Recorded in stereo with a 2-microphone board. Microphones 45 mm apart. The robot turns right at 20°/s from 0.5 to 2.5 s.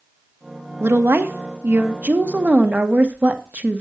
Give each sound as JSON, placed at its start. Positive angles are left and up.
{"t": 0.8, "sound": "a woman speaking", "azimuth_deg": -70, "distance_m": 1.3}